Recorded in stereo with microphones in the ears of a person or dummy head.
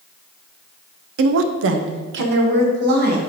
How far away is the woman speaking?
About 0.5 m.